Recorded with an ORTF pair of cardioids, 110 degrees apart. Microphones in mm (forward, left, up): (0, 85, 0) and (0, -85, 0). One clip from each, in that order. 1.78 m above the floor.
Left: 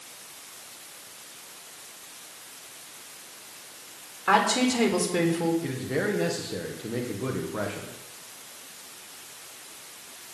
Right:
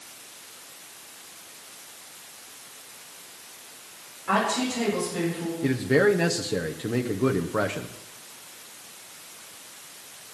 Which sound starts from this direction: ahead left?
A woman speaking, at 4.3 s.